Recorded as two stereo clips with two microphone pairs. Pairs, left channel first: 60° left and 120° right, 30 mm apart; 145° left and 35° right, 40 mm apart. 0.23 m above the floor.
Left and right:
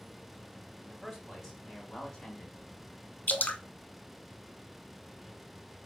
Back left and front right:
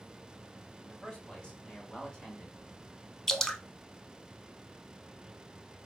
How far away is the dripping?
About 0.5 m.